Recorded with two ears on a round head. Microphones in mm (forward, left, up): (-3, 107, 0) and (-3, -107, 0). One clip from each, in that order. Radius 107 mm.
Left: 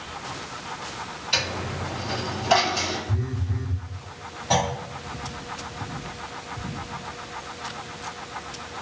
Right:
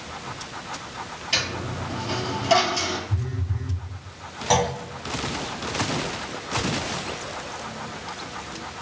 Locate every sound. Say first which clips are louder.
1.3 s a dropped coin: even; 15° right (ahead or behind), 1.9 m
3.1 s a phone buzzing: left 2 dB; 70° left (ahead or behind), 0.5 m
4.5 s a clunk: right 2 dB; 45° right (ahead or behind), 0.9 m